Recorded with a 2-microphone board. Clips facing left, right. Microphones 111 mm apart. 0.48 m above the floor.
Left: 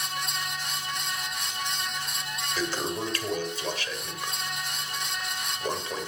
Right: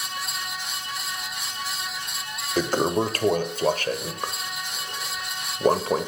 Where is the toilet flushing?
50° right (ahead or behind), 1.6 m.